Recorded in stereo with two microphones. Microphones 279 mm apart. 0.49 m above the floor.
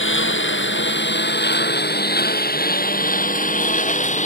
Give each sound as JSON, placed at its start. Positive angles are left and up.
{"t": 0.0, "sound": "a lawn mower", "side_deg": 45}